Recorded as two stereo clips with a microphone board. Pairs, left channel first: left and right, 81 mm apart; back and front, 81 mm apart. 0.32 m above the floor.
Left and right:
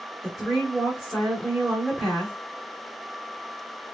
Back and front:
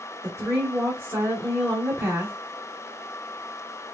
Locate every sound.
0.2 s a woman speaking: 10° right, 1.2 m